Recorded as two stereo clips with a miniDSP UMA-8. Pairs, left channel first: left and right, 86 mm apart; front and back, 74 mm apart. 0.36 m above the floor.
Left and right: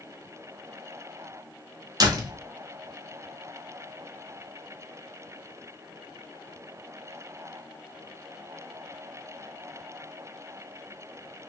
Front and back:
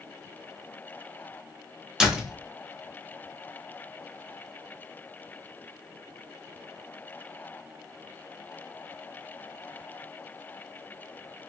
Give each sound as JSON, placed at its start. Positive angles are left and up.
{"t": 2.0, "sound": "a door slam", "azimuth_deg": -100, "distance_m": 0.7}